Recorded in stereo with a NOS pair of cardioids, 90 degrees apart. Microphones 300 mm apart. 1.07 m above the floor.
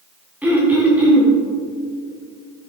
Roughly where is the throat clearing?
Ahead.